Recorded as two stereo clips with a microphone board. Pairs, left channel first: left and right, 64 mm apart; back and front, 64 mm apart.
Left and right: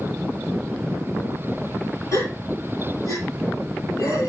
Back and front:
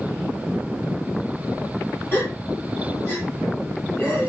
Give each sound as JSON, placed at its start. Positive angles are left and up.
{"t": 2.1, "sound": "a gasp", "azimuth_deg": 125, "distance_m": 4.5}